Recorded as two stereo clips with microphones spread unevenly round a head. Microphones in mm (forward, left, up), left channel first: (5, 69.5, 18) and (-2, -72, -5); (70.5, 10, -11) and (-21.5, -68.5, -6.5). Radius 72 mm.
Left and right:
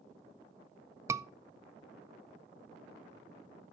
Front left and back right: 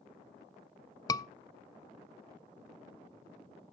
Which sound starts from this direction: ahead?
A scream, at 1.1 s.